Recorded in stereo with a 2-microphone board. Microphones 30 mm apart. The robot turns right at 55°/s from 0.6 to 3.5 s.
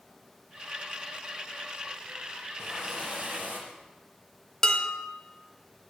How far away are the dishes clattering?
About 1.4 m.